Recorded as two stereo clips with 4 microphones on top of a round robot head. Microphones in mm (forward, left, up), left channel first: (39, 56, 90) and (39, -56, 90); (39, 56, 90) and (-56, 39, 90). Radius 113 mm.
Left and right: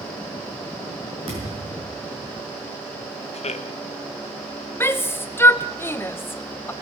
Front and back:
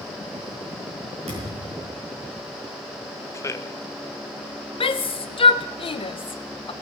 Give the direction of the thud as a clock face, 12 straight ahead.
5 o'clock.